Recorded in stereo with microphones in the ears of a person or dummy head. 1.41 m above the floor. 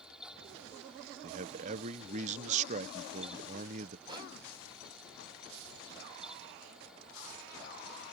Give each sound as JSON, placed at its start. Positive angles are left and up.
{"t": 0.0, "sound": "a fan", "side_deg": -5}
{"t": 1.2, "sound": "a man speaking", "side_deg": -40}
{"t": 4.1, "sound": "a whoosh", "side_deg": -25}